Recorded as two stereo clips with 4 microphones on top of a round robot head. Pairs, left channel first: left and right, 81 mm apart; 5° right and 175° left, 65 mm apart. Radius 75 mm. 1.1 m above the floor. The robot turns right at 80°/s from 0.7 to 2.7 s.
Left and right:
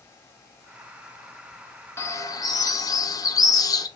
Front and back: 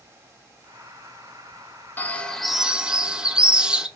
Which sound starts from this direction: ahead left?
A bird, at 2.0 s.